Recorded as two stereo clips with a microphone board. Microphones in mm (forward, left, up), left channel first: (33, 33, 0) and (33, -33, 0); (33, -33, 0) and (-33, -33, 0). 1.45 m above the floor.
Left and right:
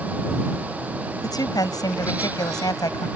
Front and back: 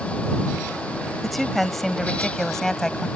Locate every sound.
1.2 s a woman speaking: 90° left; by 3.1 s 85° left